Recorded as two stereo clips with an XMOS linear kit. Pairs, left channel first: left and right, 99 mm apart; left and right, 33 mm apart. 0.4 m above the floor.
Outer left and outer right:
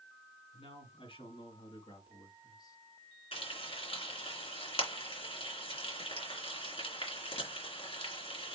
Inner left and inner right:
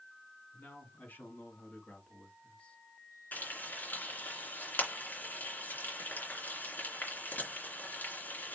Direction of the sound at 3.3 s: 75° left (ahead or behind).